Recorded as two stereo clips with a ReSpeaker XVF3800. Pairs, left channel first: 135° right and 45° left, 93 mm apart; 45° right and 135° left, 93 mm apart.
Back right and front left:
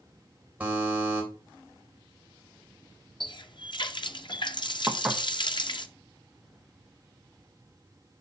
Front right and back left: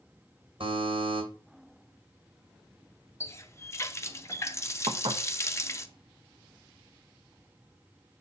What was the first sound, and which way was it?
A buzzer, 120° left.